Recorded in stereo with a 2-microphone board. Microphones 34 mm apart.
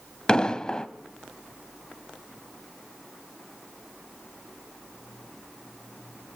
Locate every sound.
0.3 s an explosion: 25° left (ahead or behind), 1.5 m